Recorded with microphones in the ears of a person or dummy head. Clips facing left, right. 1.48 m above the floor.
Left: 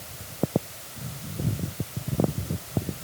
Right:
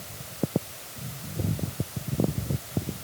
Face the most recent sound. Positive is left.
No sound to turn to.